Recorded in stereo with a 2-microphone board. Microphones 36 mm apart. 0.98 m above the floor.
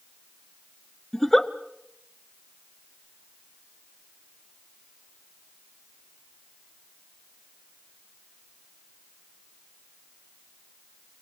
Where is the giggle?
10° left (ahead or behind), 0.9 m.